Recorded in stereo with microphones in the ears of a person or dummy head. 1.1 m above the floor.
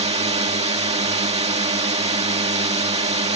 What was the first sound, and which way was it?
A drone, 35° right (ahead or behind).